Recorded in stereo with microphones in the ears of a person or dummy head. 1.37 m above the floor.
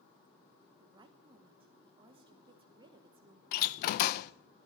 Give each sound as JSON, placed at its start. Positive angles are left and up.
{"t": 0.8, "sound": "a woman speaking", "side_deg": -35, "distance_m": 0.9}
{"t": 3.5, "sound": "a door slam", "side_deg": 50, "distance_m": 0.5}